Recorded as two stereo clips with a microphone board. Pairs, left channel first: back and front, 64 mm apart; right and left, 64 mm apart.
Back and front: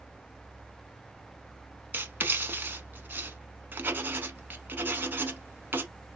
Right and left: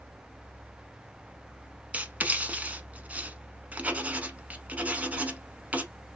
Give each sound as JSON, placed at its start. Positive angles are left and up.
{"t": 1.9, "sound": "writing", "azimuth_deg": 40, "distance_m": 0.7}